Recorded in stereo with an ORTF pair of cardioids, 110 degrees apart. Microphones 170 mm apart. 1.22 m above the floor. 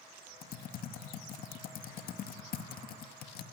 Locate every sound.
0.4 s typing on a keyboard: 60° left, 2 m